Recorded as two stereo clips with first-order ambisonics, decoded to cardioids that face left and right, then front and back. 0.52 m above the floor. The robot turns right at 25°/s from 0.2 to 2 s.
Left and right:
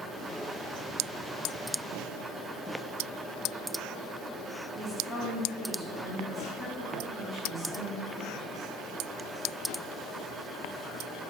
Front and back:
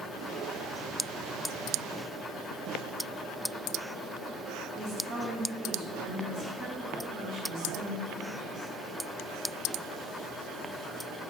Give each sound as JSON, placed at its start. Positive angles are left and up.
{"t": 4.8, "sound": "a woman speaking", "azimuth_deg": -170, "distance_m": 0.8}